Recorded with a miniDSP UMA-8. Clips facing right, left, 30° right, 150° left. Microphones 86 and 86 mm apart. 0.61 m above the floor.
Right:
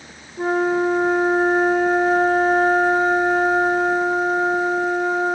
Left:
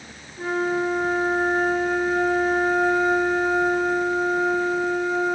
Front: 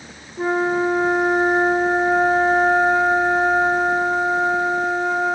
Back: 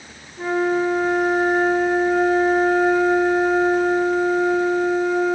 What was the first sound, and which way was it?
A flute, 75° right.